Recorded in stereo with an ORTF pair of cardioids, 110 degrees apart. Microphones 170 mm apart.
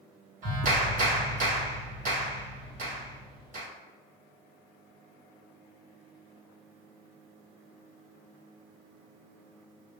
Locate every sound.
0.4 s a clap: 50° right, 1.9 m